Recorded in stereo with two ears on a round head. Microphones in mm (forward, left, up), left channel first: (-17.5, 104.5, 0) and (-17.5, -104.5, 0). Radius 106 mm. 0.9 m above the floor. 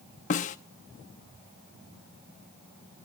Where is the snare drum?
35° left (ahead or behind), 0.6 m.